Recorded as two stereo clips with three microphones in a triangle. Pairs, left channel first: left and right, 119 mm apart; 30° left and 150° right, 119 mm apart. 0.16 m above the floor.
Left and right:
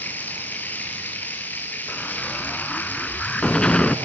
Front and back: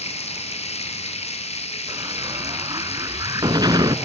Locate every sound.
0.0 s running water: 20° left, 3 m
1.9 s an explosion: 170° left, 0.6 m